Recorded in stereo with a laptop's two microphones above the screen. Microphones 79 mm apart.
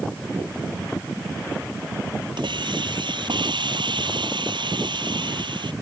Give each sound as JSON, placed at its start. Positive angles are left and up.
{"t": 2.4, "sound": "a hiss", "side_deg": -80}